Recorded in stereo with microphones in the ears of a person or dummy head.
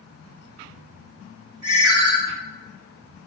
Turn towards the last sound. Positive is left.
turn(degrees=-65)  # may be behind; listen again after turning